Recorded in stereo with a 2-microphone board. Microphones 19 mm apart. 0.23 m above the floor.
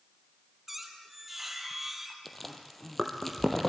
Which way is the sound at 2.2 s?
10° left (ahead or behind).